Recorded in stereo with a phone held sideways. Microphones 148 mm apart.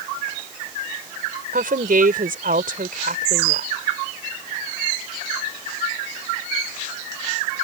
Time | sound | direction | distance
1.5 | a woman speaking | 75° right (ahead or behind) | ?